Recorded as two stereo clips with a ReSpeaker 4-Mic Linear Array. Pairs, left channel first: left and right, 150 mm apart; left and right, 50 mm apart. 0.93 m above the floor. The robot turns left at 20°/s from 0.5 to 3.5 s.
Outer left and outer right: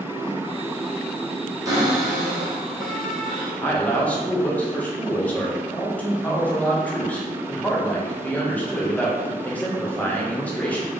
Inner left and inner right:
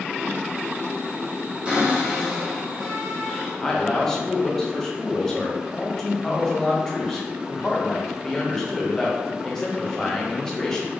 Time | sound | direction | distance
1.6 | a cupboard door | 150° right | 1.5 m
3.6 | a man speaking | 10° left (ahead or behind) | 1.0 m